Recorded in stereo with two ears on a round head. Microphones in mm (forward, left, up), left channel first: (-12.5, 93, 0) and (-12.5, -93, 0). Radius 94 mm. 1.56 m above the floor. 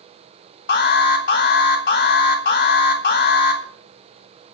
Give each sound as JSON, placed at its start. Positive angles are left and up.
{"t": 0.7, "sound": "an alarm", "side_deg": 55, "distance_m": 3.5}